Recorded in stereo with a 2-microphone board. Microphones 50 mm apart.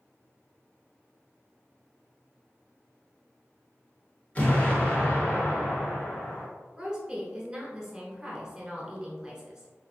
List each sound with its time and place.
4.3 s an explosion: 25° left (ahead or behind), 1.5 m
6.8 s a woman speaking: 15° right (ahead or behind), 1.2 m